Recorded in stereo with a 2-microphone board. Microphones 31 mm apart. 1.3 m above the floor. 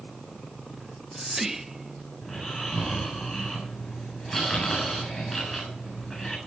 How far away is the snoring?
About 8.5 m.